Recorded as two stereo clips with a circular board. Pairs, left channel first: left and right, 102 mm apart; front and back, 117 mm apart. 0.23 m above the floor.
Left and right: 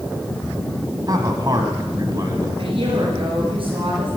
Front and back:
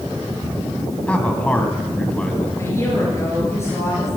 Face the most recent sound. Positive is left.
turn(degrees=-65)